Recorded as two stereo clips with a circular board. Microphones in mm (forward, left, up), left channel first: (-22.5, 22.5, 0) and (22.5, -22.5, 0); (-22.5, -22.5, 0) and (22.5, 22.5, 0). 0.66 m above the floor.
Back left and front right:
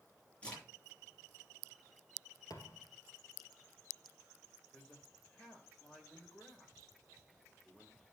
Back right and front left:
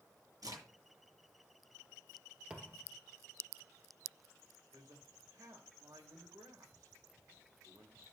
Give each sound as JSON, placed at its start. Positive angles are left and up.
{"t": 0.4, "sound": "a crack", "azimuth_deg": 65, "distance_m": 9.0}
{"t": 2.5, "sound": "a thud", "azimuth_deg": 115, "distance_m": 2.5}
{"t": 4.7, "sound": "a man speaking", "azimuth_deg": 60, "distance_m": 3.5}